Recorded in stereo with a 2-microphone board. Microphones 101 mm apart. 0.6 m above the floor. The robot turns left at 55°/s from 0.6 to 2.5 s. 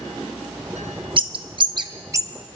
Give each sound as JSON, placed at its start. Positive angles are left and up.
{"t": 1.2, "sound": "a bird", "side_deg": -55, "distance_m": 0.5}